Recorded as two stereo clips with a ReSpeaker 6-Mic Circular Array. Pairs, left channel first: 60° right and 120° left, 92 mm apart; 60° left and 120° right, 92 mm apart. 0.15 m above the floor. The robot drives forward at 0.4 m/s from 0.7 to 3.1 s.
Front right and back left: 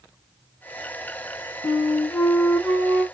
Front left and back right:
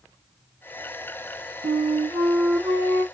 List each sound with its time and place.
1.6 s a flute: 155° right, 1.4 m; by 3.0 s 165° right, 1.9 m